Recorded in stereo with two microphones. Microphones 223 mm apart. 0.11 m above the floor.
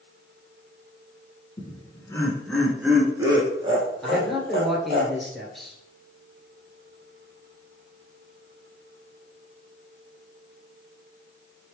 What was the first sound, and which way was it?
Laughter, 25° left (ahead or behind).